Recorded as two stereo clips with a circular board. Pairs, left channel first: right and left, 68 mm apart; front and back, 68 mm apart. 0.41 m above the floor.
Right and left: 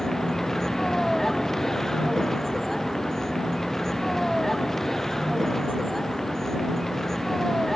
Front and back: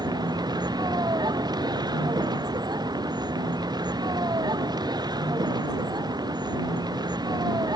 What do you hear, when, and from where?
0.0 s a vehicle: 175° right